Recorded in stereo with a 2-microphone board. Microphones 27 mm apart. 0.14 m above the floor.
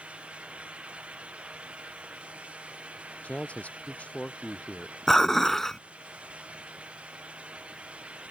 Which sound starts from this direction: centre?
Dishes clattering, at 5.1 s.